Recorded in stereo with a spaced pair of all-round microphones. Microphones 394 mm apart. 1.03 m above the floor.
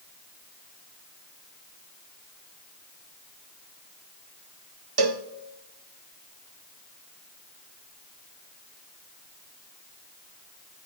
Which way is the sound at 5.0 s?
70° right (ahead or behind).